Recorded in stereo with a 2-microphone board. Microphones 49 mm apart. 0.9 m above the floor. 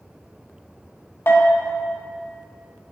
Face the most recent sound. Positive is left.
turn(degrees=55)  # may be behind; listen again after turning